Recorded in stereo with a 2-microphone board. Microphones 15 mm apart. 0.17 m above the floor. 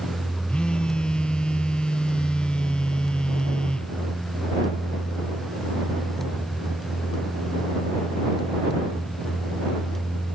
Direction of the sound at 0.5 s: 90° left.